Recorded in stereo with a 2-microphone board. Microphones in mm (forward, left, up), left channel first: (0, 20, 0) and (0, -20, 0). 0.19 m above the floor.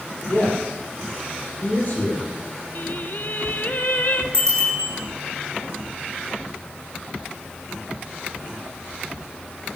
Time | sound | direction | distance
0.3 | a man speaking | 45° left (ahead or behind) | 6.5 m
2.8 | singing | 50° left (ahead or behind) | 1.1 m
4.3 | a bicycle bell | 25° left (ahead or behind) | 8.5 m